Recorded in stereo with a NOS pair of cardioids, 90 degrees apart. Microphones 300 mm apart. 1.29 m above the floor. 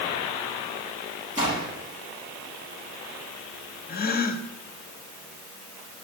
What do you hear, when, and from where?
1.4 s a gunshot: 25° right, 6.5 m
3.9 s a gasp: 30° left, 1.3 m